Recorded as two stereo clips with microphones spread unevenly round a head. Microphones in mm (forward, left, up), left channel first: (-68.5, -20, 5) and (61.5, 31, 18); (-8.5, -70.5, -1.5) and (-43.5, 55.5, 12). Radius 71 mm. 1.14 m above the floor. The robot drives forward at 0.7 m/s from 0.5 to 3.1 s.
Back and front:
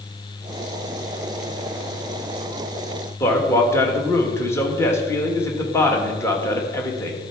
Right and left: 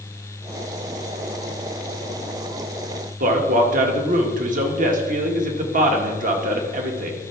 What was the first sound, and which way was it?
A man speaking, 130° left.